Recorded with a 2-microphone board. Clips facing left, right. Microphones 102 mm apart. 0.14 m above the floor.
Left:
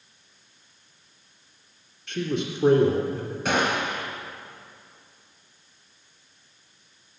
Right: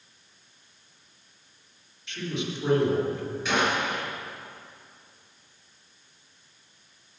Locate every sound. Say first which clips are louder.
2.1 s a man speaking: left 5 dB; 55° left (ahead or behind), 2.5 m
3.5 s a gunshot: left 2 dB; 55° left (ahead or behind), 2.5 m